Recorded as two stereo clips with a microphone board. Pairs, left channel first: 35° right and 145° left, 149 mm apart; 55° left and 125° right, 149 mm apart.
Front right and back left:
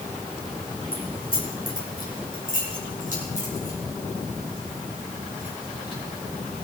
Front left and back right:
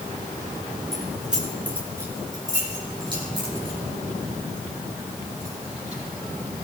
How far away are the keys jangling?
About 3.5 m.